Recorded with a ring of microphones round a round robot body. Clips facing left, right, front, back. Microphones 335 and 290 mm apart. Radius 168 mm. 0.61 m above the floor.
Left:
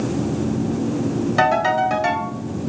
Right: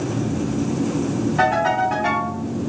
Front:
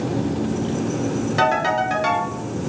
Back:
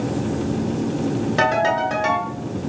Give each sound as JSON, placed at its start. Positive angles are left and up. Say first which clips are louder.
{"t": 1.4, "sound": "a ringtone", "louder": "left 1 dB, back 1 dB", "azimuth_deg": 70, "distance_m": 1.9}